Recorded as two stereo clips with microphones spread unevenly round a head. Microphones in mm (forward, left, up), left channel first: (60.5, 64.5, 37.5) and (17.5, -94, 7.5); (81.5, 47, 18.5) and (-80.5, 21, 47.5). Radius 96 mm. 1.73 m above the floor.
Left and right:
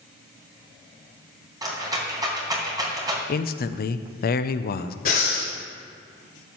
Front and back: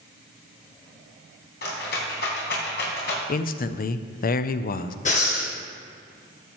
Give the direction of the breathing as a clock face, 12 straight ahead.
10 o'clock.